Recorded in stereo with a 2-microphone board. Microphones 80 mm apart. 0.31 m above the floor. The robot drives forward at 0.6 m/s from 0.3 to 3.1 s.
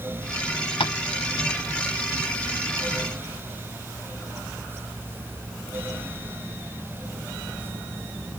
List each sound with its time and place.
0.8 s tapping: 85° left, 0.5 m; by 0.9 s 75° left (ahead or behind), 0.5 m